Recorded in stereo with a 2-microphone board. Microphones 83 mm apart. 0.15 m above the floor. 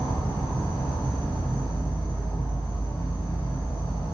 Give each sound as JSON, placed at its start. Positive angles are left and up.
{"t": 0.0, "sound": "an insect", "side_deg": 65, "distance_m": 1.2}